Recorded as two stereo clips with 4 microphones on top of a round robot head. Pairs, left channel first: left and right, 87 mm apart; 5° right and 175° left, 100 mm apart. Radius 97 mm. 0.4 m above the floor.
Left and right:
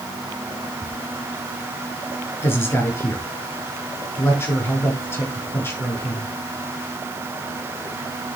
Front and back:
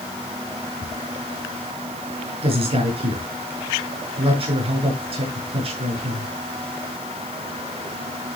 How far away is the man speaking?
About 6.5 m.